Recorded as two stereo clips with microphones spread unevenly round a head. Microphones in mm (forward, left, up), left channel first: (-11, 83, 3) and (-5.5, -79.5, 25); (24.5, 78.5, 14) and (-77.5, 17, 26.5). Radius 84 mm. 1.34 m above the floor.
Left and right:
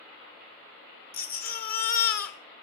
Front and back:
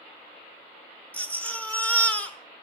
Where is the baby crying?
110° left, 1.3 m.